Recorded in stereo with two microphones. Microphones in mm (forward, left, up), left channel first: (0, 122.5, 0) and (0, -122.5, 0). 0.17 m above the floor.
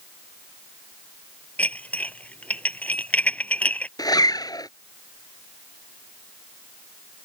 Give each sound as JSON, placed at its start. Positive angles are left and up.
{"t": 1.6, "sound": "dishes clattering", "side_deg": 5}
{"t": 4.0, "sound": "a zipper", "side_deg": 15}